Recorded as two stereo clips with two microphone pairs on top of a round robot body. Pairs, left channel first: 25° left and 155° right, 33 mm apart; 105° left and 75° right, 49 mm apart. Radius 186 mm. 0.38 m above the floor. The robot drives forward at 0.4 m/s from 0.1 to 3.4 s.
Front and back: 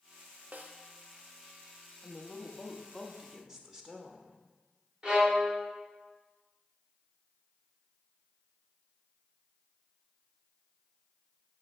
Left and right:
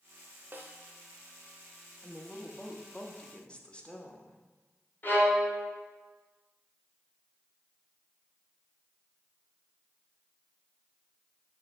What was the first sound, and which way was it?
A snare drum, 120° right.